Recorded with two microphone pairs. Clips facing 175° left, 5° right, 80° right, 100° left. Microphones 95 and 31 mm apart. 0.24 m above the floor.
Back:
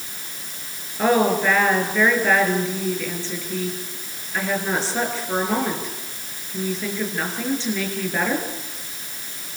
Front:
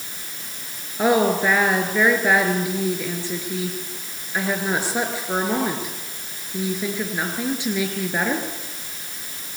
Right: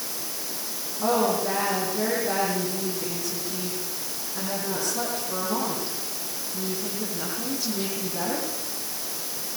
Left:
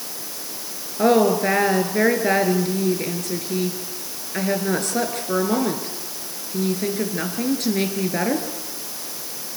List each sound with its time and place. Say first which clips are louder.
1.0 s a woman speaking: even, left 7 dB; 75° left, 4.5 m